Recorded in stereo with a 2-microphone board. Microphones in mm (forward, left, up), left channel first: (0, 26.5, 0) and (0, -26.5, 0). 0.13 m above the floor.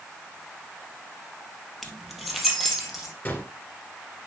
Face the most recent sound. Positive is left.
turn(degrees=40)  # may be behind; listen again after turning